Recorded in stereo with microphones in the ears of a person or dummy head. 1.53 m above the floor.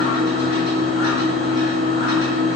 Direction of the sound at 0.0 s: 75° left (ahead or behind).